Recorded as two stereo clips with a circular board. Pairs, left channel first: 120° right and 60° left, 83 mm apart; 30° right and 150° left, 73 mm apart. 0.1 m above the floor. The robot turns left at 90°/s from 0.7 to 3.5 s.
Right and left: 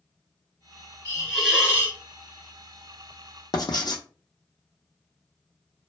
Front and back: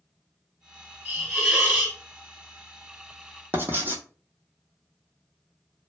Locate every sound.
1.1 s a hiss: 175° left, 1.4 m; by 2.0 s 90° left, 1.4 m
3.5 s writing: 150° right, 0.6 m